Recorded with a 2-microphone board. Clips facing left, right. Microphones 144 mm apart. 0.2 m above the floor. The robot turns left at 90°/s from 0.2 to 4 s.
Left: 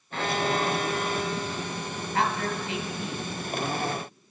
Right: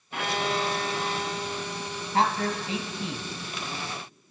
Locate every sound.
0.1 s a violin: 25° right, 1.3 m; by 2.0 s 170° left, 1.3 m
2.1 s a man speaking: 60° right, 1.2 m; by 3.3 s 160° right, 1.2 m